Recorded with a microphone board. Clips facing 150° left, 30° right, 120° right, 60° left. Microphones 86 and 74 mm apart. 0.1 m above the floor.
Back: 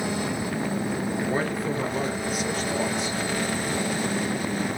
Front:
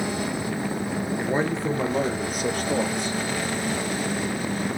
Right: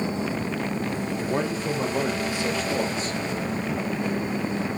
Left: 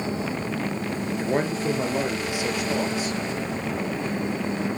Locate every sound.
1.2 s a man speaking: 35° left, 2.0 m; by 3.2 s 25° right, 3 m